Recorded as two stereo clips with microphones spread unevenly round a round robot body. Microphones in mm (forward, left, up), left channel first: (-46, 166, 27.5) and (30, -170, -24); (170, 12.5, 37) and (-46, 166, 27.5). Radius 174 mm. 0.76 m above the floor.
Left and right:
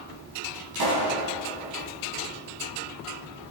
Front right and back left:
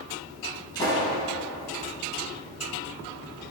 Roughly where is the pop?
Behind right.